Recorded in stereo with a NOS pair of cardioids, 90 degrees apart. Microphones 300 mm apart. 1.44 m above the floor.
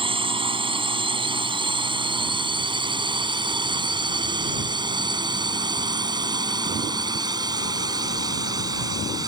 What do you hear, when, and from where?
0.0 s a drone: 20° right; by 9.3 s 15° right